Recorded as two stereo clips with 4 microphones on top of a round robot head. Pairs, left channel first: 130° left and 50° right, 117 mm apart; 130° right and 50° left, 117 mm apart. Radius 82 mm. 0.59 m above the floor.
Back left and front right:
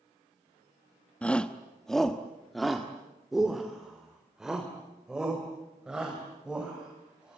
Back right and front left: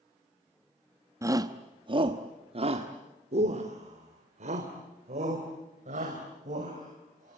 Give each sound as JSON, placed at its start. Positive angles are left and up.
{"t": 1.2, "sound": "a shout", "azimuth_deg": 60, "distance_m": 1.0}